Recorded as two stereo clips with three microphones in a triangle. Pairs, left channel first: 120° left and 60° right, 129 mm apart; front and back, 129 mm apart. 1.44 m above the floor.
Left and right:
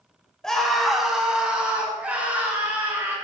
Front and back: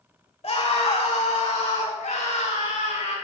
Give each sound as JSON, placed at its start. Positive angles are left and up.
{"t": 0.4, "sound": "a scream", "azimuth_deg": 35, "distance_m": 3.0}